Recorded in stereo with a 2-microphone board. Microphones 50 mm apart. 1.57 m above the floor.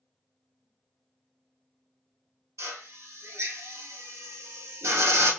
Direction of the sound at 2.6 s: 75° right (ahead or behind).